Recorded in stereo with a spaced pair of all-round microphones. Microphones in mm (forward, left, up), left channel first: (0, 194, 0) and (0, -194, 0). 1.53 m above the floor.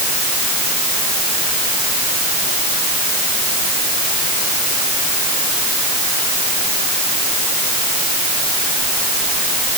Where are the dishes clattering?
I don't hear dishes clattering.